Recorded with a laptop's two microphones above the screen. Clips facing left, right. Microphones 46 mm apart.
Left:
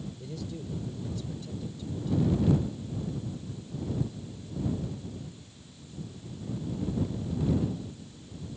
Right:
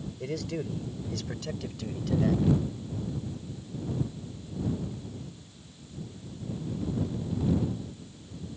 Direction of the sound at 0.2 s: 70° right (ahead or behind).